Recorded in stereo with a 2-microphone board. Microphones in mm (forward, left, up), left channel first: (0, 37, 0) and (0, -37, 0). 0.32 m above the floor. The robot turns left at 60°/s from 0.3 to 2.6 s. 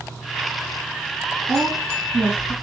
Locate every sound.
1.5 s a woman speaking: 35° right (ahead or behind), 3 m; by 2.5 s 25° left (ahead or behind), 3 m